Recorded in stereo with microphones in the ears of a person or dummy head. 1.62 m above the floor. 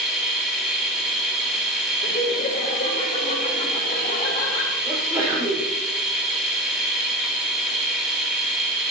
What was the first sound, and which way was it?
A machine running, centre (ahead or behind).